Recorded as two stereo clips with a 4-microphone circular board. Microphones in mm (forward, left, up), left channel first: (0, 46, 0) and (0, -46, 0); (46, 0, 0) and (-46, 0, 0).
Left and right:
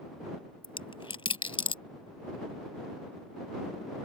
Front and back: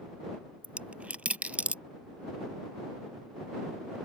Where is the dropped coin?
105° left.